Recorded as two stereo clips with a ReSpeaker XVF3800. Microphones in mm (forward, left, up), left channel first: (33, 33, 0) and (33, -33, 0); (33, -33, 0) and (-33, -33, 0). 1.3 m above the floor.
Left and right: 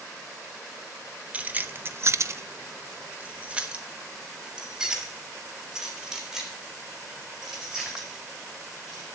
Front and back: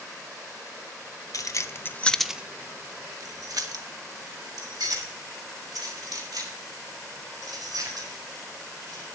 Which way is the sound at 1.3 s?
25° right.